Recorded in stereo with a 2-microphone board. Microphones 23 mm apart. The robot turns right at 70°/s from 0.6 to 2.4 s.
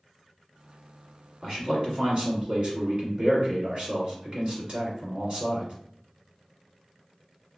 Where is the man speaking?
145° right, 1.6 m; by 5.7 s 80° right, 1.6 m.